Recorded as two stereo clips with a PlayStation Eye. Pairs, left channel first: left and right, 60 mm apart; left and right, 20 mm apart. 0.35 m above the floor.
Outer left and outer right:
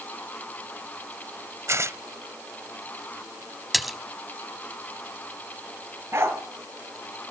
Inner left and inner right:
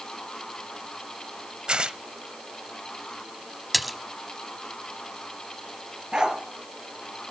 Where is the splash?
Centre (ahead or behind), 1.1 m.